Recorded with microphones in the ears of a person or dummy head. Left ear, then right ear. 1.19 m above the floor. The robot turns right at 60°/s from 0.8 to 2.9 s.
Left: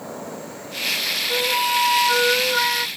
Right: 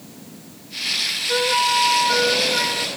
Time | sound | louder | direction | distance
1.3 | a flute | right 3 dB | 10° right | ?